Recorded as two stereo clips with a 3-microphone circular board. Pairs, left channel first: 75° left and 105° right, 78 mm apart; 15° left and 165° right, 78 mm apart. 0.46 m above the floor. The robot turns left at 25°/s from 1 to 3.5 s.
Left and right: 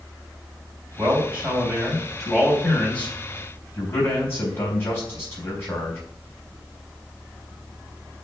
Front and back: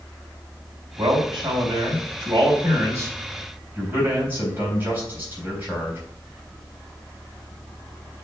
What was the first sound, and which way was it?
A man speaking, 165° right.